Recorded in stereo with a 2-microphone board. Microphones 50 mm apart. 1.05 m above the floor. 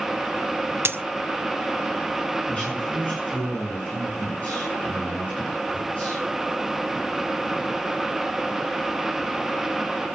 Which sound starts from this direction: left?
A man speaking, at 2.5 s.